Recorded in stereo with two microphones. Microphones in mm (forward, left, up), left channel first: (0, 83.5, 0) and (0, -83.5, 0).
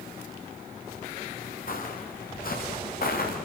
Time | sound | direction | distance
1.7 | footsteps | 60° left (ahead or behind) | 8.5 m